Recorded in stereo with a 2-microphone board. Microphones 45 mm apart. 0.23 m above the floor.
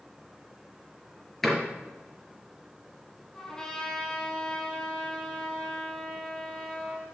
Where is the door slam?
5° left (ahead or behind), 4 m.